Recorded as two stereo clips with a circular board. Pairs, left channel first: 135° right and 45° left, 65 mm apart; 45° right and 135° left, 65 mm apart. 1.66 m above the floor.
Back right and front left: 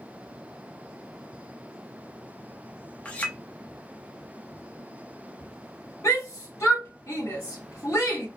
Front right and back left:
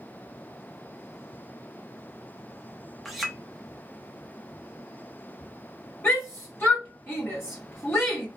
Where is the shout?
100° right, 1.2 m.